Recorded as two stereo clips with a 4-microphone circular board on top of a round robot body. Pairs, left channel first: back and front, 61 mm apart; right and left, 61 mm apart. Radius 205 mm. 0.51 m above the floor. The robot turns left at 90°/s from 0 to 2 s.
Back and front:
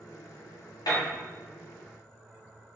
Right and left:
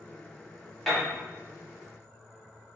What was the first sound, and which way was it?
A piano, 175° right.